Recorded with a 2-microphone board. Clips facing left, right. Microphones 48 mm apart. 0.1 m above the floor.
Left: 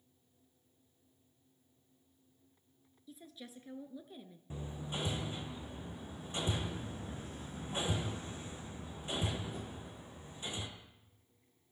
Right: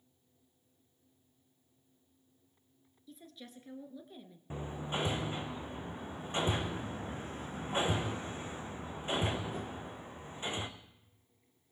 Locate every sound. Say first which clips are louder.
3.1 s a woman speaking: even; 5° left (ahead or behind), 1.4 m
4.5 s hammering: right 5 dB; 35° right (ahead or behind), 1.7 m